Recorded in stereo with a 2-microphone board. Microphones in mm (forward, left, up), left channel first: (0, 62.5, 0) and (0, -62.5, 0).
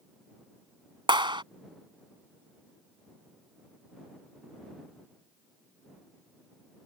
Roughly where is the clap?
Right.